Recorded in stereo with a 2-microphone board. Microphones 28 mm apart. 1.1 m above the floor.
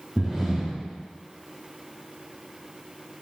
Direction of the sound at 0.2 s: 15° right (ahead or behind).